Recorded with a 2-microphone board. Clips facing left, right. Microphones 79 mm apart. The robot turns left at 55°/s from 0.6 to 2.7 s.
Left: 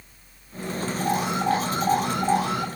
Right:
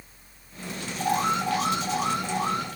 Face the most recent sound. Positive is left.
turn(degrees=90)